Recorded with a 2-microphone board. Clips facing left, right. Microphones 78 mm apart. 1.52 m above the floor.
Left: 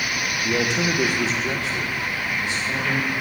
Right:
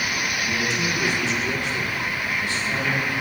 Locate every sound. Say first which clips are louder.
0.4 s a man speaking: left 5 dB; 65° left (ahead or behind), 0.8 m; by 3.1 s 10° left (ahead or behind), 1.7 m